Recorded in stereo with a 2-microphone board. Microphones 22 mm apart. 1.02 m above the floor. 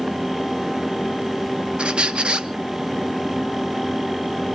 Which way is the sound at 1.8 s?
45° right (ahead or behind).